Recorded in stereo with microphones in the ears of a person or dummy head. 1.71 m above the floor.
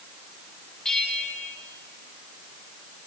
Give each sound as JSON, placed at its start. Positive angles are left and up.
{"t": 0.8, "sound": "a bell", "side_deg": 0, "distance_m": 2.0}